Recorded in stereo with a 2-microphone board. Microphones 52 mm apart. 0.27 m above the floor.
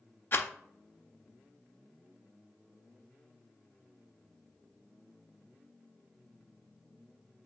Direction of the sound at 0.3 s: 45° left (ahead or behind).